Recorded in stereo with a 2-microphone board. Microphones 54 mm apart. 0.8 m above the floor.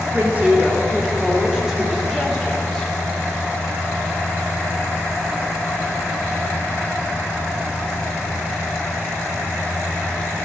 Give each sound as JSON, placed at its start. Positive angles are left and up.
{"t": 0.1, "sound": "a woman speaking", "side_deg": -30, "distance_m": 2.0}